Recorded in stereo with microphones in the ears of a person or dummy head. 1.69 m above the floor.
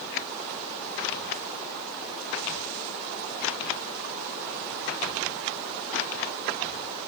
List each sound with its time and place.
Only background noise.